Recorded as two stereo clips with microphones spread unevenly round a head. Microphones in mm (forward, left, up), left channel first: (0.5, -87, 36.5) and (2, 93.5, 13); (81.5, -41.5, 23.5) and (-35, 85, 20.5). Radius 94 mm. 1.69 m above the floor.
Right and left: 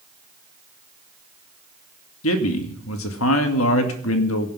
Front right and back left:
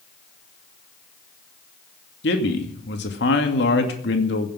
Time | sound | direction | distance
2.2 | a man speaking | 85° right | 2.5 m